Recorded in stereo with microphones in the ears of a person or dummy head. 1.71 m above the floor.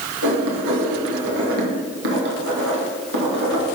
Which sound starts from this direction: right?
Writing, at 0.2 s.